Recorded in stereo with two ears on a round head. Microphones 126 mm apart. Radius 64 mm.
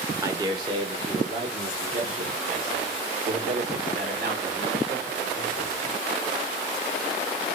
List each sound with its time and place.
0.2 s a man speaking: 25° right (ahead or behind), 1.2 m; by 5.8 s 70° right (ahead or behind), 4 m